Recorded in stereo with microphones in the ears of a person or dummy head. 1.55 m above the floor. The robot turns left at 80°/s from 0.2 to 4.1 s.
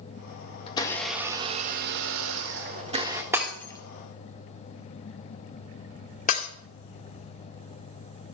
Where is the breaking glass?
10° right (ahead or behind), 1.9 m; by 6.5 s 45° left (ahead or behind), 1.9 m.